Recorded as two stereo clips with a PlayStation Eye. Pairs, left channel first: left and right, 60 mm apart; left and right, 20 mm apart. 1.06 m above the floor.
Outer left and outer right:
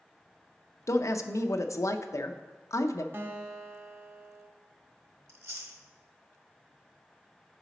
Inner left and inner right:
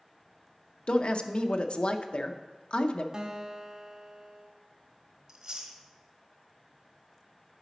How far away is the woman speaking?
About 0.6 m.